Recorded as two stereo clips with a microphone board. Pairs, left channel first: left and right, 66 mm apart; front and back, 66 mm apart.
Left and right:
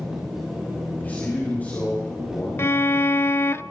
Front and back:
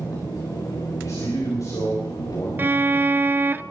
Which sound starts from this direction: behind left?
A violin, at 2.6 s.